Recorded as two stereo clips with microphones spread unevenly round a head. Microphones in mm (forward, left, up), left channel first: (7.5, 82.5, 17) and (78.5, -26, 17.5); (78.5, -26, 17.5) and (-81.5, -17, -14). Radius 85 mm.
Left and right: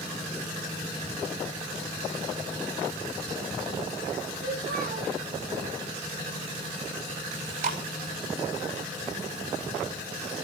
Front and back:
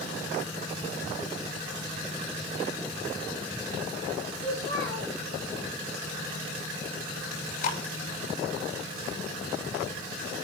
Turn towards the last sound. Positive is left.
turn(degrees=-35)